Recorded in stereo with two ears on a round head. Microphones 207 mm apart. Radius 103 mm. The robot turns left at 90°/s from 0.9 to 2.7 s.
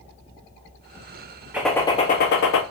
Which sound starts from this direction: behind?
A gunshot, at 1.5 s.